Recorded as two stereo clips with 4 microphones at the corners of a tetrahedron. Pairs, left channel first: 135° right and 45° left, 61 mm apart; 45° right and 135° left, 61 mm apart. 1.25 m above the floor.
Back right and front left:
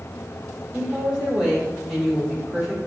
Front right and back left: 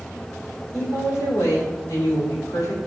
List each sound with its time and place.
0.7 s a woman speaking: 35° right, 3 m